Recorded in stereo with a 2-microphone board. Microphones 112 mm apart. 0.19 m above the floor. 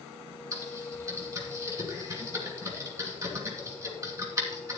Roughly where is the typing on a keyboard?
Right.